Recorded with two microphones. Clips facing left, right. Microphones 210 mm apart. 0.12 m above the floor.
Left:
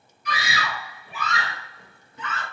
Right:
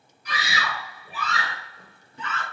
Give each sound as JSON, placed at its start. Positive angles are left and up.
{"t": 0.2, "sound": "a scream", "side_deg": -35, "distance_m": 2.0}